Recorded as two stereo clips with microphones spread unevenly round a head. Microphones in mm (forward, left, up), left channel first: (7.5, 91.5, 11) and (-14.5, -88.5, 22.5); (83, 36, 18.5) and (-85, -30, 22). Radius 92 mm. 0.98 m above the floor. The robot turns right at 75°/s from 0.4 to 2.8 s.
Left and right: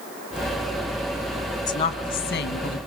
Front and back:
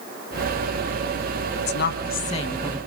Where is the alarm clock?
No alarm clock in this recording.